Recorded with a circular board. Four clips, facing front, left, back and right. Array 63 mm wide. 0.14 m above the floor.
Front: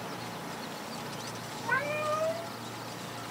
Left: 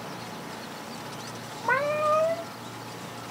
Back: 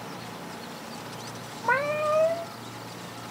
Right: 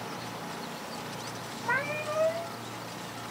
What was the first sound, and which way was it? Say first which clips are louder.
A cat meowing: left 7 dB, back 6 dB; 145° left.